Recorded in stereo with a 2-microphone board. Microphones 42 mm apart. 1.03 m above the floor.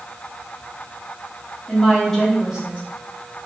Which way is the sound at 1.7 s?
25° left (ahead or behind).